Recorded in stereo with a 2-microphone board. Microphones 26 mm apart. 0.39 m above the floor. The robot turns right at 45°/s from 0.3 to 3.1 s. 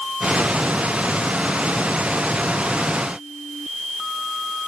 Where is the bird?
I don't hear a bird.